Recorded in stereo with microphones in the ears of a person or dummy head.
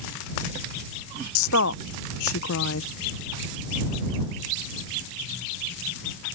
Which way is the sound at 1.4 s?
70° left (ahead or behind).